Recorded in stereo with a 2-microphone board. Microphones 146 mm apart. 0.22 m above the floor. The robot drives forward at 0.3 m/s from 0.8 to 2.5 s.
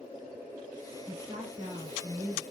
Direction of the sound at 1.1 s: 50° right (ahead or behind).